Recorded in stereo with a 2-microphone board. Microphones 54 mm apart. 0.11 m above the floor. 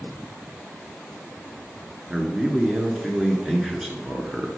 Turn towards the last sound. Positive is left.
turn(degrees=-15)  # may be behind; listen again after turning